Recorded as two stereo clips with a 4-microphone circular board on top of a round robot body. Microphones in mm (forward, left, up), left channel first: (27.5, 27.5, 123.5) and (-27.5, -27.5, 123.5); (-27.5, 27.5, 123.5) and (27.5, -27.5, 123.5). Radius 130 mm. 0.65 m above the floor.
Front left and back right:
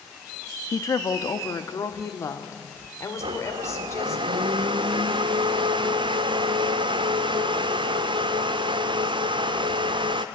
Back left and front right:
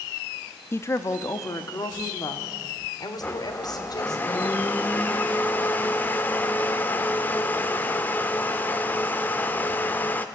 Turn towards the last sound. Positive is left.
turn(degrees=-155)